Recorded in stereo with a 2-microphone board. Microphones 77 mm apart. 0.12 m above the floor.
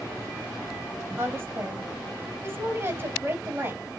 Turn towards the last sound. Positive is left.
turn(degrees=-30)  # may be behind; listen again after turning